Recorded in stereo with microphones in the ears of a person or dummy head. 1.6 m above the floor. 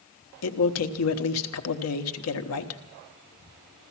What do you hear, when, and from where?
0.4 s a man speaking: 80° left, 1.0 m